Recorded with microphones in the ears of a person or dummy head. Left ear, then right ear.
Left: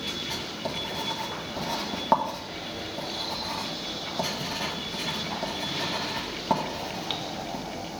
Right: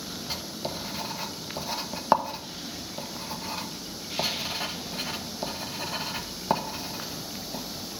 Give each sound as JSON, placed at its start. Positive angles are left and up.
{"t": 0.3, "sound": "writing", "side_deg": -35, "distance_m": 0.9}